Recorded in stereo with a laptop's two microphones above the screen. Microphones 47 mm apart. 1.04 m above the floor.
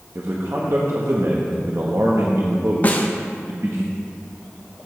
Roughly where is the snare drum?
Left.